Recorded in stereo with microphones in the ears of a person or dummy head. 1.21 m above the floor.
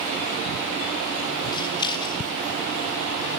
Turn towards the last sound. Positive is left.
turn(degrees=25)  # may be behind; listen again after turning